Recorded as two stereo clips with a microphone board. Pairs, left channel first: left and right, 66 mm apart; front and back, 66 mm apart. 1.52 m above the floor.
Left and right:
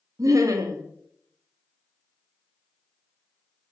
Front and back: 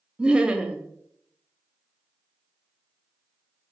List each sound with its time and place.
0.2 s laughter: 105° right, 0.5 m